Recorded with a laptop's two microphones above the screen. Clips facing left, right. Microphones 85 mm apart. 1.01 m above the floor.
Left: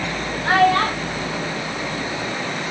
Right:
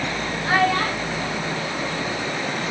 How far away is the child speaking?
About 2.5 m.